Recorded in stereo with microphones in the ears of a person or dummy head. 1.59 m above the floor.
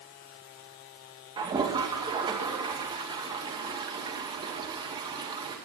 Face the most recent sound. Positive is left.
turn(degrees=-20)  # may be behind; listen again after turning